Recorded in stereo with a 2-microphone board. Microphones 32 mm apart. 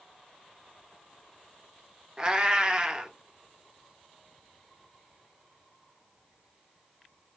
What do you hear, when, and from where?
2.2 s a cat meowing: 30° right (ahead or behind), 0.6 m